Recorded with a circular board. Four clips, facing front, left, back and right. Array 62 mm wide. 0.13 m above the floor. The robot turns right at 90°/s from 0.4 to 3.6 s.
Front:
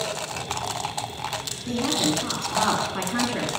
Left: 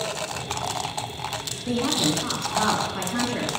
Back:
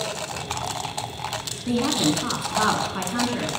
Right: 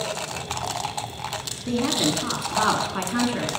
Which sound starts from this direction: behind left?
A woman speaking, at 1.7 s.